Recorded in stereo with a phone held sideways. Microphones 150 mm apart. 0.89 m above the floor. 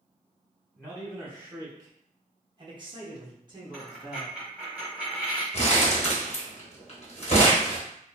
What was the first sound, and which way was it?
A man speaking, 5° right (ahead or behind).